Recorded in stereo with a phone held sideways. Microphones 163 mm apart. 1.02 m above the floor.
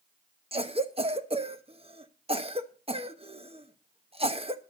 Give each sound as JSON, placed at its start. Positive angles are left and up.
{"t": 0.5, "sound": "a cough", "side_deg": -35, "distance_m": 1.1}